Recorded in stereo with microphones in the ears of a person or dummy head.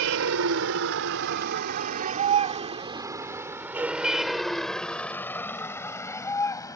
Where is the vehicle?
85° right; by 6.8 s 15° left (ahead or behind).